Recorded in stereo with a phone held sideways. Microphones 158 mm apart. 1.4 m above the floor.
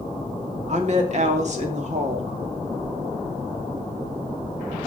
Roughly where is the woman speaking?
Right.